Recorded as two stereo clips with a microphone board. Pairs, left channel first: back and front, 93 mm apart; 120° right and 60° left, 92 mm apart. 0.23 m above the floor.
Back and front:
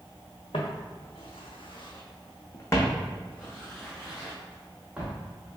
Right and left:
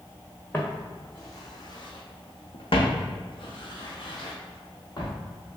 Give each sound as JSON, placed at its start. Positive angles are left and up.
{"t": 0.5, "sound": "footsteps", "azimuth_deg": 170, "distance_m": 1.1}